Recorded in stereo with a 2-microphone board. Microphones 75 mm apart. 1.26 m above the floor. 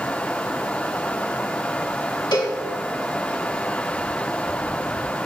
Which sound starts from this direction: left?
A cowbell, at 2.3 s.